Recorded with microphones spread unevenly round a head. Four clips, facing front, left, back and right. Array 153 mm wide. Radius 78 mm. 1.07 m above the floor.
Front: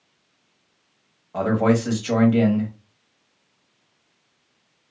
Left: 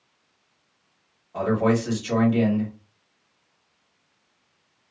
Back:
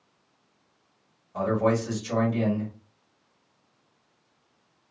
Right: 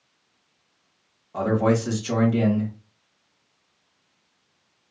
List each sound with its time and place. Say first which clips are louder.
1.3 s a man speaking: even, front 4 dB; 15° right, 1.4 m